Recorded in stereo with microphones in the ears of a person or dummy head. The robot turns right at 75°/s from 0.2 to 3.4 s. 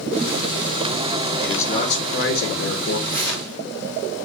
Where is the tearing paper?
50° right (ahead or behind), 2.5 m; by 3.6 s 75° right (ahead or behind), 2.5 m.